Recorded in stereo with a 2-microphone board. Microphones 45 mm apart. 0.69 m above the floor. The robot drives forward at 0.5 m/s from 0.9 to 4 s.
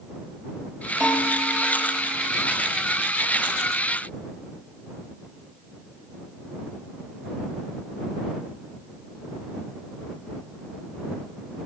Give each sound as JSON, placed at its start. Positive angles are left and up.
{"t": 1.0, "sound": "a bell", "side_deg": -20, "distance_m": 9.0}